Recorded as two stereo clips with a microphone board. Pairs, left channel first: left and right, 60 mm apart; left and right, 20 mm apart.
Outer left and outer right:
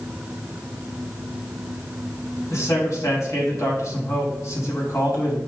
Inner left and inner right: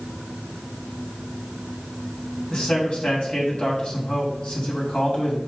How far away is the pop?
I don't hear a pop.